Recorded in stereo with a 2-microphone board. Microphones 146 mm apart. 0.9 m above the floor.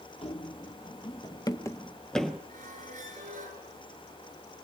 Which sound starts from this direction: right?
A squeak, at 2.5 s.